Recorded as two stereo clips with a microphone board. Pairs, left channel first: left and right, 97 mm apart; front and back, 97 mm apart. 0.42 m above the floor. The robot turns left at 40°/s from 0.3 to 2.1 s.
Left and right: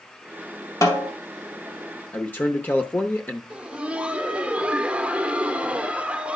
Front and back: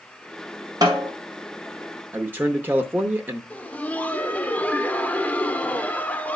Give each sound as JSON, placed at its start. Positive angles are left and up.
{"t": 0.8, "sound": "a snare drum", "azimuth_deg": 140, "distance_m": 2.0}
{"t": 2.1, "sound": "a man speaking", "azimuth_deg": 135, "distance_m": 0.8}
{"t": 3.5, "sound": "laughter", "azimuth_deg": -40, "distance_m": 0.8}